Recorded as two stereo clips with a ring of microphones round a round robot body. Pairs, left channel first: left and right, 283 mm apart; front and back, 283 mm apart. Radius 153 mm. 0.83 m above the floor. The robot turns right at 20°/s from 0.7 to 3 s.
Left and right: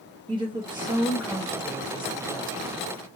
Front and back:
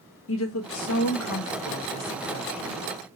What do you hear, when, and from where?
0.3 s a woman speaking: 20° right, 1.0 m; by 2.8 s 25° left, 1.0 m